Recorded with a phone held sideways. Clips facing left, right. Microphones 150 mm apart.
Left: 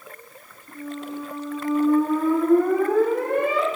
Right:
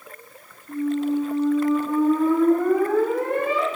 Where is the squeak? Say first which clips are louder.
Right 10 dB; 20° left (ahead or behind), 1.1 m.